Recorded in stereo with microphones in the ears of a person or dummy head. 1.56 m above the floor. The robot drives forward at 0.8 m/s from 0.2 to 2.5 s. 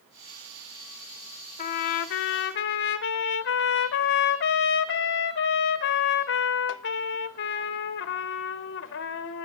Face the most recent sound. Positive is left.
turn(degrees=40)  # may be behind; listen again after turning